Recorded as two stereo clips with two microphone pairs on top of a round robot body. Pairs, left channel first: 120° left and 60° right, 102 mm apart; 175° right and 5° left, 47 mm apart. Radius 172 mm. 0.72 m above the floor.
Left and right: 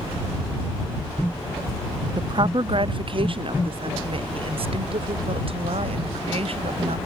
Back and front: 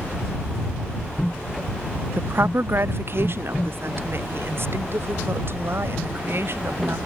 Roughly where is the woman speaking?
Ahead.